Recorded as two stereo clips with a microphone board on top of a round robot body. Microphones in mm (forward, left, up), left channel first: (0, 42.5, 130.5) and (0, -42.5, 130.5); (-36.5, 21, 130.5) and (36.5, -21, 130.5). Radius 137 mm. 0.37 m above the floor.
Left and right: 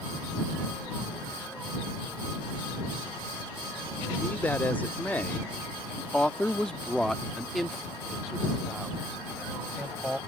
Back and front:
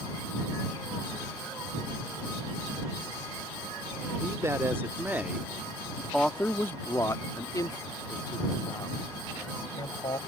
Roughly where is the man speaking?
Ahead.